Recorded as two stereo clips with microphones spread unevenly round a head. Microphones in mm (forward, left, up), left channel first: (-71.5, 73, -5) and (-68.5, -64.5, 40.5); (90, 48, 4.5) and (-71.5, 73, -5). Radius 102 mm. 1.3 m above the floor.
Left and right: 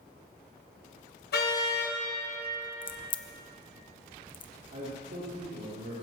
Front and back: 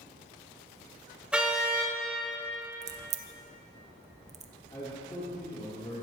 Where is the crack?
130° left, 0.9 m.